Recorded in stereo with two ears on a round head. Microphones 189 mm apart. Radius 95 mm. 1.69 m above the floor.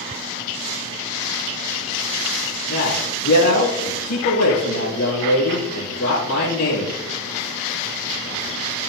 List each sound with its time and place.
2.7 s a man speaking: 85° left, 3.5 m